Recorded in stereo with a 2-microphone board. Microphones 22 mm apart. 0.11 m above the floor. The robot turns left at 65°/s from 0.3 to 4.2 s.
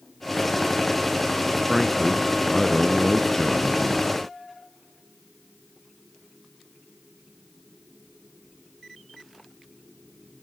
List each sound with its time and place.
1.7 s a man speaking: 5° right (ahead or behind), 1.3 m; by 4.1 s 15° left (ahead or behind), 1.3 m